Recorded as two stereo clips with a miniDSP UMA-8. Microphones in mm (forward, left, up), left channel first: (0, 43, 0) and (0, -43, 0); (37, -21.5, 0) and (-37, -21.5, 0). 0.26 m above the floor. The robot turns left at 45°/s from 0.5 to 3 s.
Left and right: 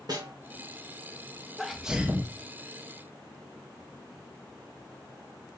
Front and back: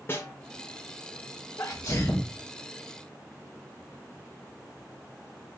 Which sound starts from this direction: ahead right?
A snare drum, at 0.1 s.